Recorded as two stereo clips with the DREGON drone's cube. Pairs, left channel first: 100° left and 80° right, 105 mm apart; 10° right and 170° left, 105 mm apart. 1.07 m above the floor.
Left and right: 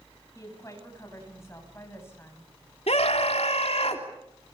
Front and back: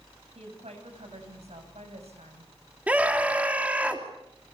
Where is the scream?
95° left, 3 m.